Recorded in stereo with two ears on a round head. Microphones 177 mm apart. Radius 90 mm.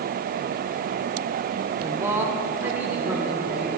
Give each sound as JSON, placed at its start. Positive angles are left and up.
{"t": 1.8, "sound": "a man speaking", "side_deg": -15, "distance_m": 0.7}